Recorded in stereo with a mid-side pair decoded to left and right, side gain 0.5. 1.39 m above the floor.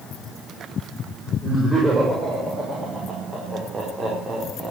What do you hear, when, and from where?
1.4 s laughter: 15° right, 6 m; by 4.7 s 40° right, 3.5 m